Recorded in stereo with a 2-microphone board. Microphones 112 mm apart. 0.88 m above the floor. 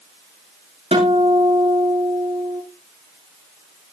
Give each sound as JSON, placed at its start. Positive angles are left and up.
{"t": 0.9, "sound": "a guitar", "side_deg": -65, "distance_m": 10.0}